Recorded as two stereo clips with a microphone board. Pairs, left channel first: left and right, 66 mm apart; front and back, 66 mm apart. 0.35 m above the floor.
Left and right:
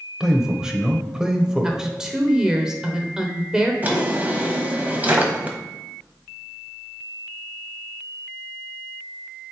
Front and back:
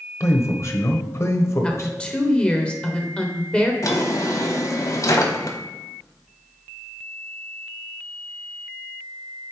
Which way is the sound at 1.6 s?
35° right.